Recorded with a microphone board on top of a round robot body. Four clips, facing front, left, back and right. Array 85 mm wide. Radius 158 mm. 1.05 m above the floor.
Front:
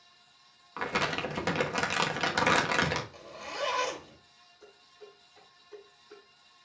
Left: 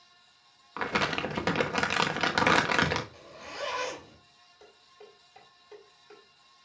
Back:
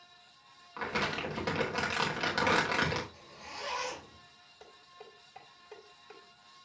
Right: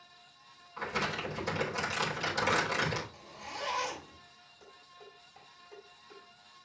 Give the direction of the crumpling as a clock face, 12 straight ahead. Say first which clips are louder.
Left 5 dB, front 3 dB; 10 o'clock.